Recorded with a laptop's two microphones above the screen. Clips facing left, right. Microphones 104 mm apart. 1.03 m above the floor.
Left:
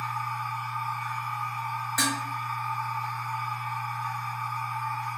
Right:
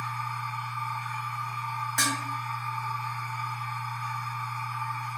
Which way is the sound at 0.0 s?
70° left (ahead or behind).